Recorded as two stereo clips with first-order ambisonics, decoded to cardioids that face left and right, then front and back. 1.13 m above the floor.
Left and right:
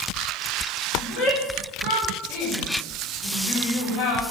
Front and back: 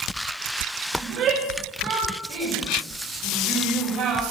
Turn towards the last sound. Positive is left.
turn(degrees=135)